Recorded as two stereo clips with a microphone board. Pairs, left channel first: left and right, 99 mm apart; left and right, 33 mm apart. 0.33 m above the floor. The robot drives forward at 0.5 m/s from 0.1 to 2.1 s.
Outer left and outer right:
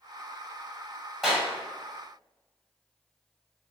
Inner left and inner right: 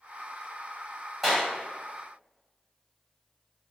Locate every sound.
1.2 s a clap: centre (ahead or behind), 1.6 m